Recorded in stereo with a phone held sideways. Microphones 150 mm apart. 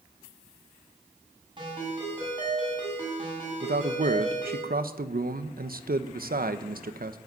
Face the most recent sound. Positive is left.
turn(degrees=-75)  # may be behind; listen again after turning